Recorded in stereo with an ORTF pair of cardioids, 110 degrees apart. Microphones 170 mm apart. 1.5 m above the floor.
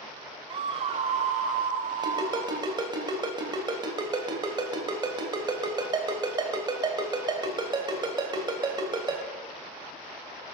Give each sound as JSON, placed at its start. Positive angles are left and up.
{"t": 0.5, "sound": "a scream", "azimuth_deg": -30, "distance_m": 0.5}
{"t": 2.0, "sound": "a ringtone", "azimuth_deg": -30, "distance_m": 3.0}